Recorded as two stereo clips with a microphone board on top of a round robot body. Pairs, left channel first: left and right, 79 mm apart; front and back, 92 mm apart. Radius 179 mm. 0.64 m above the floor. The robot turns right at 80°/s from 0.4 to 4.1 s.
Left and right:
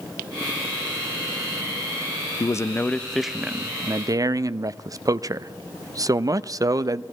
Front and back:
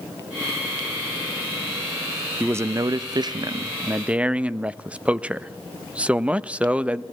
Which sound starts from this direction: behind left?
A man speaking, at 2.4 s.